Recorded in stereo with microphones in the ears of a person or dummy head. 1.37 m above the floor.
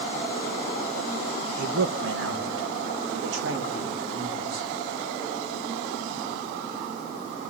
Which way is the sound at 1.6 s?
65° right (ahead or behind).